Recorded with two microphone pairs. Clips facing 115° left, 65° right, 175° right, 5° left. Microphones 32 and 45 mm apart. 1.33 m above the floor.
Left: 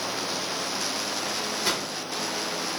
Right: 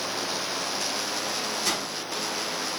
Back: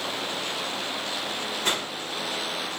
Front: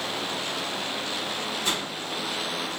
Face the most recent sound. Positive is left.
turn(degrees=175)